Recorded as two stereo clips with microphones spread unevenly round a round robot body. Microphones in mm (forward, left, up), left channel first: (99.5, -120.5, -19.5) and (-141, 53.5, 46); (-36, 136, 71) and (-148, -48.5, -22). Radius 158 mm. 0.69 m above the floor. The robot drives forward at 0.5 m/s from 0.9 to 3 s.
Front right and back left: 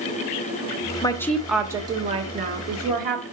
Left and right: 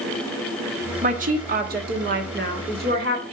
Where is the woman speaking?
100° right, 0.7 m; by 3.2 s 150° right, 1.3 m.